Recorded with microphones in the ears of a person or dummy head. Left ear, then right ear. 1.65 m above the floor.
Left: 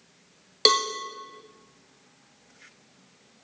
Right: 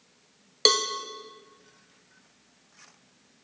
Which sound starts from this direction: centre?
A cowbell, at 0.7 s.